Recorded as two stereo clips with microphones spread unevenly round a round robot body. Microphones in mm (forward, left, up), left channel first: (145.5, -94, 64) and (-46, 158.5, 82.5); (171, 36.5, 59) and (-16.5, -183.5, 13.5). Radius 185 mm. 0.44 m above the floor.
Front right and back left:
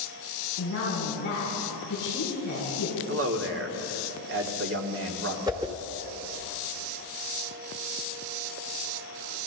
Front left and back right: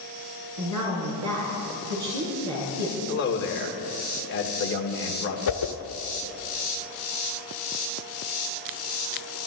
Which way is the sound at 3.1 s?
95° left.